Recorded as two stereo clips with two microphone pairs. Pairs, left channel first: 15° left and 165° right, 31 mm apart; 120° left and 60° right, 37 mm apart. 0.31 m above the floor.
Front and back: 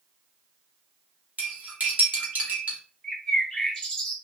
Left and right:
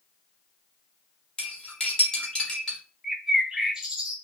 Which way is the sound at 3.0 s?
10° right.